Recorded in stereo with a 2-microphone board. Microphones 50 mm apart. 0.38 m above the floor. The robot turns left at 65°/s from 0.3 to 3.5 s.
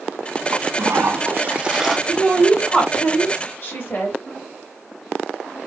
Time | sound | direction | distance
0.5 | a toilet flushing | 90° right | 0.7 m
2.1 | a woman speaking | 160° right | 1.9 m